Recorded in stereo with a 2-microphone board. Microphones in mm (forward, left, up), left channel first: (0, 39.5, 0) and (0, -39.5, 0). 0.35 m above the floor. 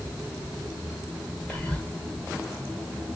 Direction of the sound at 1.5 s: 15° left (ahead or behind).